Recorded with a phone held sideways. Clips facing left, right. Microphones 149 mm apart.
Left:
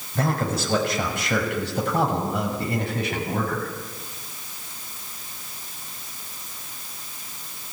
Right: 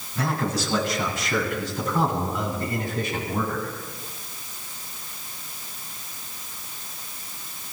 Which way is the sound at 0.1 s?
55° left (ahead or behind).